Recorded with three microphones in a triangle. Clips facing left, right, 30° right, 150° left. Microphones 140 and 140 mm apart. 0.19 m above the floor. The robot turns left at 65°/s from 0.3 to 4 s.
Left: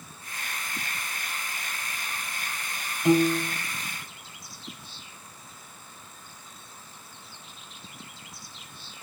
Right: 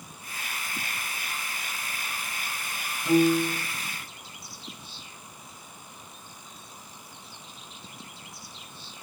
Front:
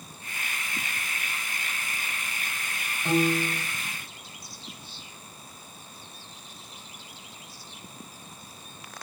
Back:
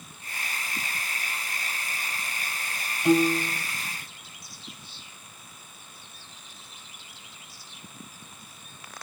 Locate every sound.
3.0 s a piano: 75° left, 3.5 m; by 3.6 s 40° left, 3.5 m